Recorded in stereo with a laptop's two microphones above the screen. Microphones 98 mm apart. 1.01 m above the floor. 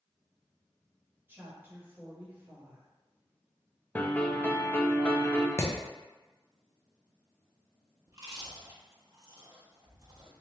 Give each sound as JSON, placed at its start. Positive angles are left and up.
{"t": 1.3, "sound": "a woman speaking", "side_deg": -20, "distance_m": 1.1}
{"t": 4.0, "sound": "a piano", "side_deg": 15, "distance_m": 0.6}
{"t": 5.6, "sound": "hammering", "side_deg": 25, "distance_m": 0.6}
{"t": 8.1, "sound": "chewing", "side_deg": -35, "distance_m": 1.1}